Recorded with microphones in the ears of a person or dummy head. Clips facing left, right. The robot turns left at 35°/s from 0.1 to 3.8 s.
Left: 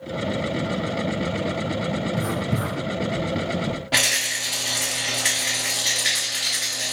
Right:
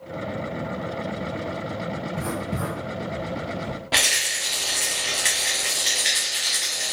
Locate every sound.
2.2 s writing: 15° left (ahead or behind), 1.1 m; by 3.8 s 25° left (ahead or behind), 1.1 m
3.9 s a rattle: centre (ahead or behind), 0.5 m